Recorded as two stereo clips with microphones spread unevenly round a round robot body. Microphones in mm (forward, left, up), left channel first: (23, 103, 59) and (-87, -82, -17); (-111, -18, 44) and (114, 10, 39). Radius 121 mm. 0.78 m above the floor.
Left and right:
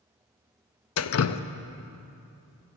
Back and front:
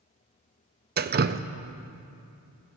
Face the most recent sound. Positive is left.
turn(degrees=35)